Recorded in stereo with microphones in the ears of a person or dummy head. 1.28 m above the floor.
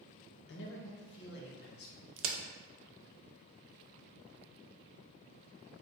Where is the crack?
65° right (ahead or behind), 0.6 m.